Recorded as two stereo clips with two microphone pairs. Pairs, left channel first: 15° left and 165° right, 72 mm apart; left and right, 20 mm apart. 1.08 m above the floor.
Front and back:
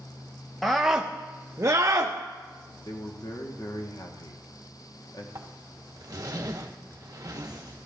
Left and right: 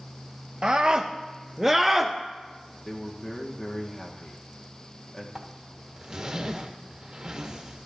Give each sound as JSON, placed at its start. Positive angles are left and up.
{"t": 0.6, "sound": "a scream", "azimuth_deg": -70, "distance_m": 0.7}
{"t": 2.9, "sound": "a man speaking", "azimuth_deg": 25, "distance_m": 1.1}
{"t": 5.3, "sound": "a zipper", "azimuth_deg": -140, "distance_m": 1.1}